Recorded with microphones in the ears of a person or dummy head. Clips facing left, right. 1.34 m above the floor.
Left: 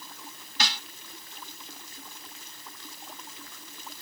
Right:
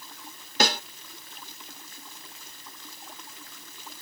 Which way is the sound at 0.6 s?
50° right (ahead or behind).